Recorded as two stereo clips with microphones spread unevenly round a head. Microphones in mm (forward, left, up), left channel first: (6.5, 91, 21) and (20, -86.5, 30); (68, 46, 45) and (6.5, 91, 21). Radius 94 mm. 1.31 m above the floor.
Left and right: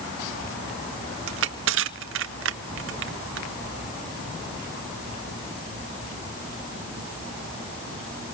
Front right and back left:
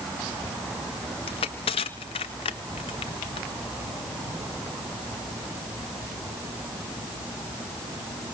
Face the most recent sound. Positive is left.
turn(degrees=-70)